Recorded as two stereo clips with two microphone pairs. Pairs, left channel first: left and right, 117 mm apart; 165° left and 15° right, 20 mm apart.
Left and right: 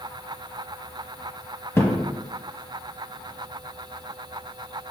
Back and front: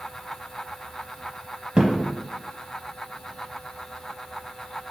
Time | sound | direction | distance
1.8 | a thud | 25° left | 0.7 m